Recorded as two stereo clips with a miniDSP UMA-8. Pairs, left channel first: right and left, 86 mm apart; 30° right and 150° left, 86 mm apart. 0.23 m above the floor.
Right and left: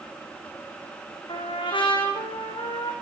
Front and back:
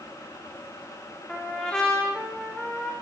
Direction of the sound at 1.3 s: 115° right.